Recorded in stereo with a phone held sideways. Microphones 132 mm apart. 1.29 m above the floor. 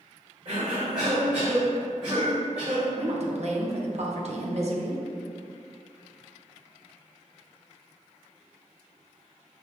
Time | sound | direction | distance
0.5 | a cough | 60° right (ahead or behind) | 1.6 m
3.0 | a woman speaking | 55° right (ahead or behind) | 0.6 m